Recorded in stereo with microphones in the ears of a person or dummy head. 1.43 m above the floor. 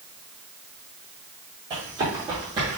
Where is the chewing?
No chewing in this recording.